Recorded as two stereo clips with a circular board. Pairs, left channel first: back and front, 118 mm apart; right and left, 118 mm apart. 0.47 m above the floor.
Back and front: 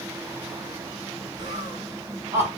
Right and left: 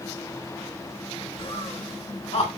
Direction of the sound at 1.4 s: 50° right.